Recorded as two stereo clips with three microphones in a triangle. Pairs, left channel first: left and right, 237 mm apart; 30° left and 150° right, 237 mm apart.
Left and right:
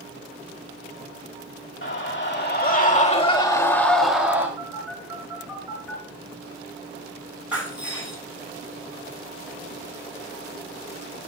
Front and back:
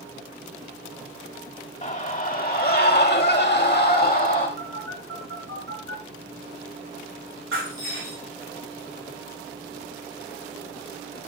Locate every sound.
1.8 s a scream: 80° left, 2 m; by 4.5 s 10° right, 1.8 m
4.6 s a phone buzzing: 175° right, 7 m
7.5 s breaking glass: 175° right, 7.5 m